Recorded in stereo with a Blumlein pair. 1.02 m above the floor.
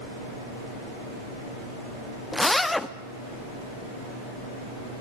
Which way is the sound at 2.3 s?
5° left.